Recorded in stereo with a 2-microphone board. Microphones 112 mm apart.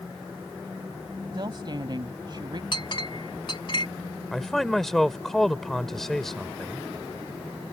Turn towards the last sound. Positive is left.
turn(degrees=5)  # may be behind; listen again after turning